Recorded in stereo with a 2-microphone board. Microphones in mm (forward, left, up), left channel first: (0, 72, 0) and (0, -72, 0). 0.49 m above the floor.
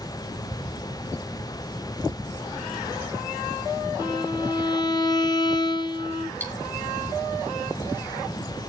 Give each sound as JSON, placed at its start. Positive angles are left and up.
{"t": 4.0, "sound": "a violin", "side_deg": 30, "distance_m": 0.8}
{"t": 6.4, "sound": "cutlery clinking", "side_deg": 15, "distance_m": 2.5}